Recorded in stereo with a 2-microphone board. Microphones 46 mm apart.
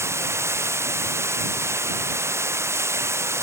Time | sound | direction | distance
0.0 | running water | 80° right | ?